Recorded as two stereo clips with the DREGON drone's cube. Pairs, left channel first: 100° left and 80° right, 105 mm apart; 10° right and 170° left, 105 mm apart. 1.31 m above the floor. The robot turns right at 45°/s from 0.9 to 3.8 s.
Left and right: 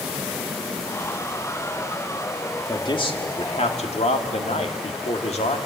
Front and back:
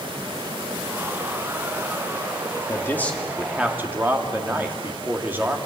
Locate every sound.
2.7 s a man speaking: 50° left, 2 m; by 5.6 s 100° left, 2 m